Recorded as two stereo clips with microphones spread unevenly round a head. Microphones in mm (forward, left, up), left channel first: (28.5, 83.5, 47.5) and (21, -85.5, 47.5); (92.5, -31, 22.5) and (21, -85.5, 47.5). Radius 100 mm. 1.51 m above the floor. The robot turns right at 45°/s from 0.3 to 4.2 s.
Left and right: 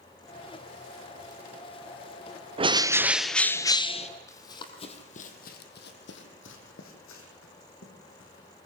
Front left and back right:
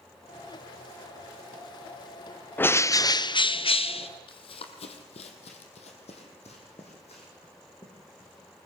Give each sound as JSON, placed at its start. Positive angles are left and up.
{"t": 2.6, "sound": "a bird", "azimuth_deg": -35, "distance_m": 0.8}
{"t": 4.3, "sound": "running footsteps", "azimuth_deg": 15, "distance_m": 2.5}